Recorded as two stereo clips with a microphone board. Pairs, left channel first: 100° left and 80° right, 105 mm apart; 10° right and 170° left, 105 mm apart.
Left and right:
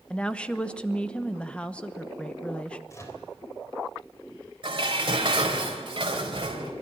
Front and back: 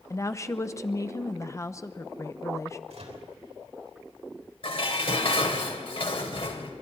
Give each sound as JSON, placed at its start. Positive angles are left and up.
{"t": 0.1, "sound": "a woman speaking", "azimuth_deg": 30, "distance_m": 0.9}
{"t": 2.9, "sound": "a microwave", "azimuth_deg": 160, "distance_m": 3.5}
{"t": 4.6, "sound": "dishes clattering", "azimuth_deg": -40, "distance_m": 3.0}